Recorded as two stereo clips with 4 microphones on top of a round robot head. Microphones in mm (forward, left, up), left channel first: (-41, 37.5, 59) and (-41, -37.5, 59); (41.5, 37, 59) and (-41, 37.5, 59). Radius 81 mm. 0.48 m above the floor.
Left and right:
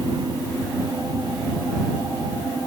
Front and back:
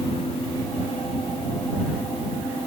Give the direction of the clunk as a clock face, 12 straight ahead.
I don't hear a clunk.